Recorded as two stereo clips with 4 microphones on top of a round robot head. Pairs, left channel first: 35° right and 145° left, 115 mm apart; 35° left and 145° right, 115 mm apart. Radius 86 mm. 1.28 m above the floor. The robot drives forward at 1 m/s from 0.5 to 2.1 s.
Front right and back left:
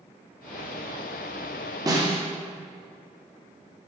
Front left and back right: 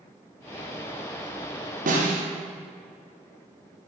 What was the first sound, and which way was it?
A snare drum, 155° right.